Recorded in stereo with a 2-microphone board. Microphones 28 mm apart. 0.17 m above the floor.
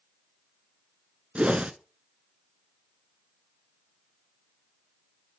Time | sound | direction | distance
1.4 | a whoosh | 50° right (ahead or behind) | 0.5 m